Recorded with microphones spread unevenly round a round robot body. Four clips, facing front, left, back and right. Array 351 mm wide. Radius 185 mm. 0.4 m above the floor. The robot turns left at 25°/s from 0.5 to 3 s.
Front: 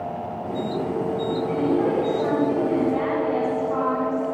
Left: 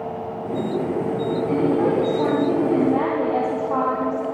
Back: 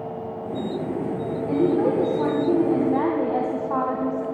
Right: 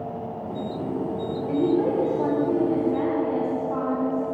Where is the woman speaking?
175° left, 3.5 m; by 4.2 s 135° left, 3.5 m.